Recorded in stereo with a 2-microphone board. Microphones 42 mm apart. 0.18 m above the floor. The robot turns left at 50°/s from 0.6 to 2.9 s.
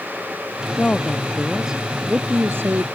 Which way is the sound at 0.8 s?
30° left.